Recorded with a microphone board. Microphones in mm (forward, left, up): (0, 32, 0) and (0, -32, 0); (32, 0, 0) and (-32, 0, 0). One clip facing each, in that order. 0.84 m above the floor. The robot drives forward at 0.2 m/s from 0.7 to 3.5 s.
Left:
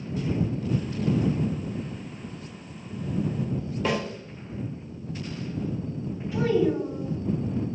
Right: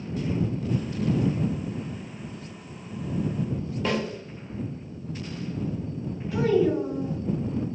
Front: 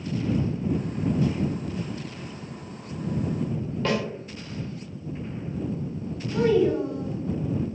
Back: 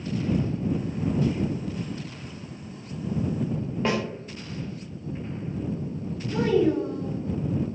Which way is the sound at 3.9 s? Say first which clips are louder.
Even, even; 160° left.